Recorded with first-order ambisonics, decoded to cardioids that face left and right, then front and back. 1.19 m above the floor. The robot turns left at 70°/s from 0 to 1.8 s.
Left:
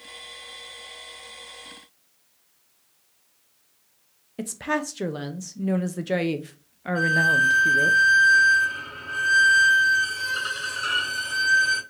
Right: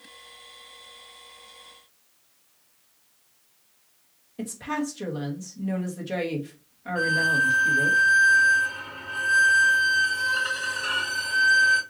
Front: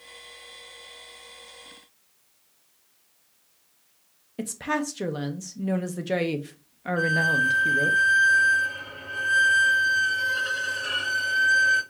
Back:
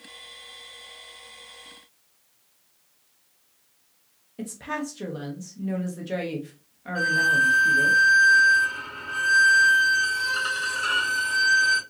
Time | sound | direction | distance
4.4 | a woman speaking | 55° left | 0.7 m
7.0 | a violin | 140° left | 3 m